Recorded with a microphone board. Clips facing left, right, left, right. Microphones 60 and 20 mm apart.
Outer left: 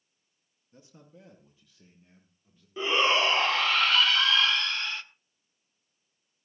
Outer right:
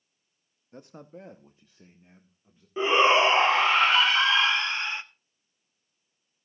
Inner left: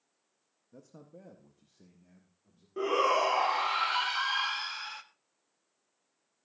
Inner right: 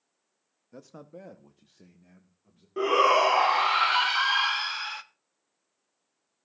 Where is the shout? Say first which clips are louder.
Outer right 5 dB, inner right 6 dB; 25° right (ahead or behind), 0.9 m.